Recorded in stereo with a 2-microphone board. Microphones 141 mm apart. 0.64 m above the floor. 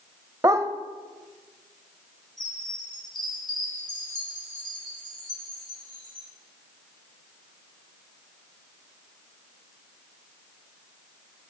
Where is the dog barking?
25° right (ahead or behind), 0.8 m.